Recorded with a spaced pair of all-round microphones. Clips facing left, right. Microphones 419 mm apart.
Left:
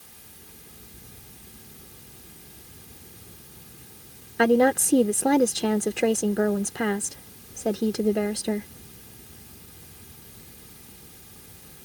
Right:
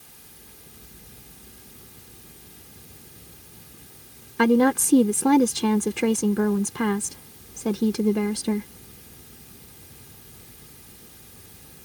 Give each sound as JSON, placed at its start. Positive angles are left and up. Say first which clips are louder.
{"t": 4.4, "sound": "a woman speaking", "louder": "right 1 dB", "side_deg": -15}